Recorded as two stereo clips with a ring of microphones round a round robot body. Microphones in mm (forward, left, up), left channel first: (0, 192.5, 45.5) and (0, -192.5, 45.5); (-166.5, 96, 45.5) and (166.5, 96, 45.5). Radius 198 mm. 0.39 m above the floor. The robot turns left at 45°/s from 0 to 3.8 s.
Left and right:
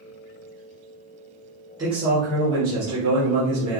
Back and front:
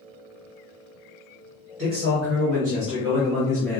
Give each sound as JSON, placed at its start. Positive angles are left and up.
{"t": 1.8, "sound": "a man speaking", "azimuth_deg": -15, "distance_m": 1.6}